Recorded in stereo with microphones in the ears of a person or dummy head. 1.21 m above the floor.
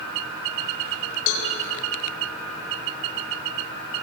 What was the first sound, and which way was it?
A cowbell, 80° left.